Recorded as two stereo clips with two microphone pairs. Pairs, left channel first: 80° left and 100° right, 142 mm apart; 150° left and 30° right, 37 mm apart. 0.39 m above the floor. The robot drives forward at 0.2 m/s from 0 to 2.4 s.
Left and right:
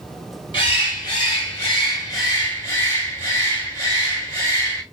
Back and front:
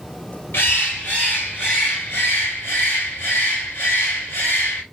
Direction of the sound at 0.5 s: 135° left.